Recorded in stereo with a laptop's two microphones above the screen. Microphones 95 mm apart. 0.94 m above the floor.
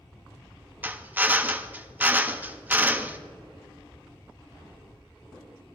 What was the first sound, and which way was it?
A drill, 20° right (ahead or behind).